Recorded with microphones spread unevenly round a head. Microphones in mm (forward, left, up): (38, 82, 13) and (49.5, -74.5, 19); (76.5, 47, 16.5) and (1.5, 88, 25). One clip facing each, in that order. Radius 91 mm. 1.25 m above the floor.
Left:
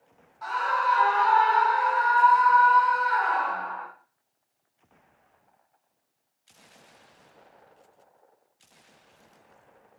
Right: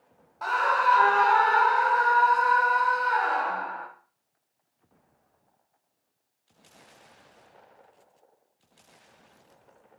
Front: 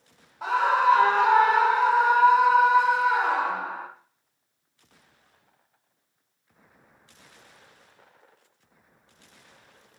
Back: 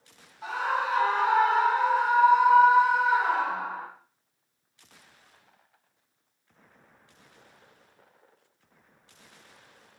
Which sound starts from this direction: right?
A scream, at 0.4 s.